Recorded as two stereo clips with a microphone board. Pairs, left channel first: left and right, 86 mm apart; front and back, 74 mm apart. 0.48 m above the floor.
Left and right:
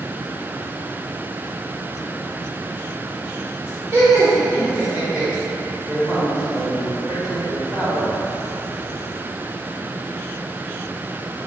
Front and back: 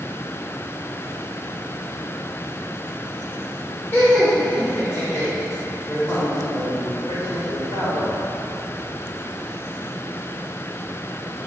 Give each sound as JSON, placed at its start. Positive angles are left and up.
{"t": 3.9, "sound": "laughter", "azimuth_deg": -55, "distance_m": 1.7}
{"t": 5.9, "sound": "a man speaking", "azimuth_deg": -15, "distance_m": 1.5}